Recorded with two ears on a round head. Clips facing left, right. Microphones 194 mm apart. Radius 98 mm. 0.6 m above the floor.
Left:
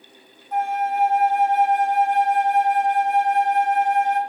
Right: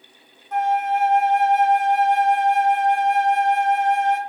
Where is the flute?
60° right (ahead or behind), 0.7 m.